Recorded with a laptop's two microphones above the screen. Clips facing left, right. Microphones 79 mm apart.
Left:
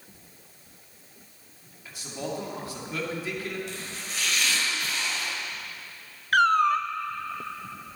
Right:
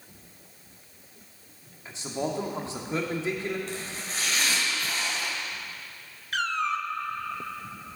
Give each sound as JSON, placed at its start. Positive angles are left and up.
{"t": 1.9, "sound": "a man speaking", "side_deg": -30, "distance_m": 2.0}
{"t": 3.7, "sound": "chopping", "side_deg": -45, "distance_m": 4.5}
{"t": 6.3, "sound": "a cat meowing", "side_deg": 55, "distance_m": 0.5}